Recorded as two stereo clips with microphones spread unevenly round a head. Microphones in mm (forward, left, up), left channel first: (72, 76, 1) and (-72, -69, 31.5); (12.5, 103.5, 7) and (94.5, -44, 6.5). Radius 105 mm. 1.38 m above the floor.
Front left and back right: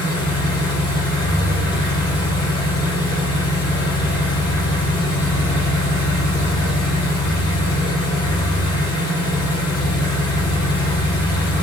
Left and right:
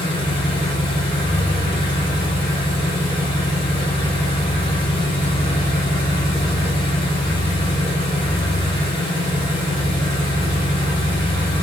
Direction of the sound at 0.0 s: 110° left.